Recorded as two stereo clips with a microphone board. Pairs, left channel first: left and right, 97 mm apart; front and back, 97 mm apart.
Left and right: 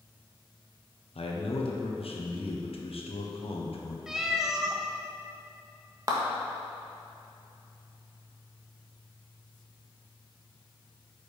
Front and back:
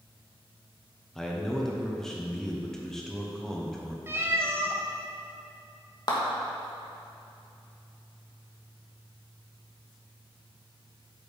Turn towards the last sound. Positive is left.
turn(degrees=-40)